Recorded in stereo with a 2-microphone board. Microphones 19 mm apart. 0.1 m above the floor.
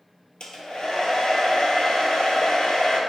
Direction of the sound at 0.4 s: 55° left (ahead or behind).